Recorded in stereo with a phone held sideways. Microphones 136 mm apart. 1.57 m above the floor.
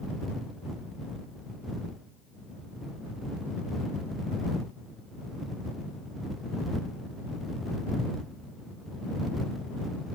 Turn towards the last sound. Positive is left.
No sound to turn to.